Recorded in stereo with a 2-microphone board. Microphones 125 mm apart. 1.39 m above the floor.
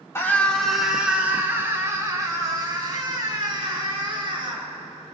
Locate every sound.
0.1 s a scream: 25° left (ahead or behind), 1.9 m; by 4.7 s 45° right (ahead or behind), 7 m